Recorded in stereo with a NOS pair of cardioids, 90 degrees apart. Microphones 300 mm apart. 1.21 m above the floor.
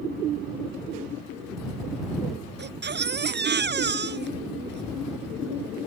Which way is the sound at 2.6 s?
35° right.